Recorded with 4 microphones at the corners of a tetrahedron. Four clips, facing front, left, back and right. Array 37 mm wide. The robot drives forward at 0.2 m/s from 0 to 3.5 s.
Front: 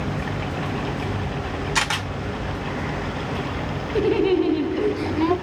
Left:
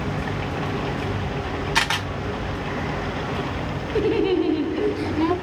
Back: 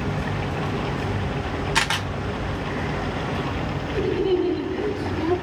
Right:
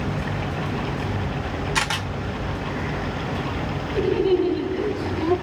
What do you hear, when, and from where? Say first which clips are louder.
1.8 s a camera shutter: left 2 dB, even; 115° left, 0.8 m; by 2.1 s 125° left, 0.8 m
4.0 s laughter: even, front 3 dB; 40° left, 0.7 m